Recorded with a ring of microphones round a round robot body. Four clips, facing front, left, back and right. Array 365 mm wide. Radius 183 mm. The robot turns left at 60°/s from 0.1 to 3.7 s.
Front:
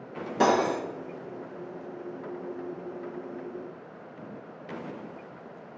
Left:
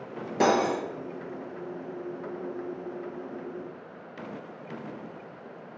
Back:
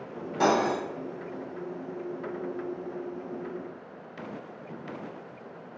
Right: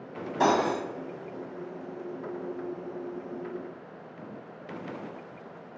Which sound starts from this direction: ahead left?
Cutlery clinking, at 0.4 s.